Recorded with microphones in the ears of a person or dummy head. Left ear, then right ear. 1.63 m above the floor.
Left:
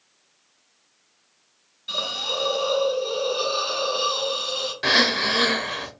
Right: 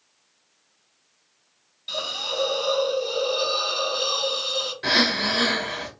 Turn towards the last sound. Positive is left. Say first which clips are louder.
# left 2 dB
turn(degrees=25)  # may be behind; listen again after turning